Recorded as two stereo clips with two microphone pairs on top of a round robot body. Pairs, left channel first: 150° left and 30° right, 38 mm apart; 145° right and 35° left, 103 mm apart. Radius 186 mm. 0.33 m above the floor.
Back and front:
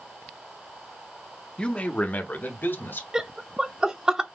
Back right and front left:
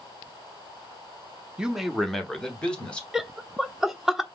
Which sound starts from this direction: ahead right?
Laughter, at 3.1 s.